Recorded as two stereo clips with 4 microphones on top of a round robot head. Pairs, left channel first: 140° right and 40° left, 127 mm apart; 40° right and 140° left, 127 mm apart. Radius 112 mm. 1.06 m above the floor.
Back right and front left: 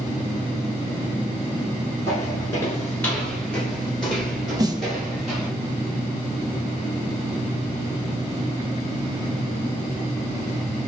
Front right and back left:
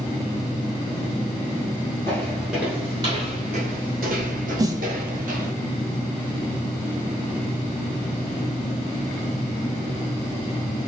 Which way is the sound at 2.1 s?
100° right.